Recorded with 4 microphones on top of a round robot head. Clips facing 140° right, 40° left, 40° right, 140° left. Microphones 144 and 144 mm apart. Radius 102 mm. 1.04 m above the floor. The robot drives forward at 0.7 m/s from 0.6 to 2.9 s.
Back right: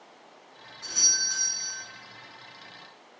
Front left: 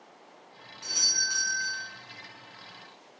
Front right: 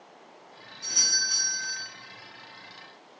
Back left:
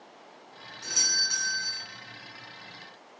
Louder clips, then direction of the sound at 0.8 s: Front left 1 dB, even; 115° left.